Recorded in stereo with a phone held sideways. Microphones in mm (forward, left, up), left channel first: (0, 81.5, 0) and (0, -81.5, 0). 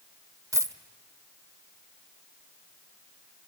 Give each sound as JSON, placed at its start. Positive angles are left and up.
{"t": 0.5, "sound": "a dropped coin", "side_deg": -20, "distance_m": 1.1}